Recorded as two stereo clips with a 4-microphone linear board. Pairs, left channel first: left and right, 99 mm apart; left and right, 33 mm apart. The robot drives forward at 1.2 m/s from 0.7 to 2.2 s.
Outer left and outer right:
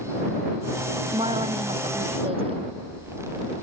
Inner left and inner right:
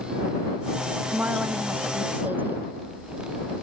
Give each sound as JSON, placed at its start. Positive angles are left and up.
{"t": 1.1, "sound": "a woman speaking", "side_deg": -65}